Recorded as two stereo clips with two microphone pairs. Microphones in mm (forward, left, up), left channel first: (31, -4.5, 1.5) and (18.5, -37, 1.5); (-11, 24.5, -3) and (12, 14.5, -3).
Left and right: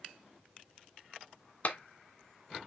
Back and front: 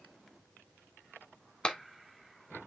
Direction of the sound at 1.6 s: 105° left.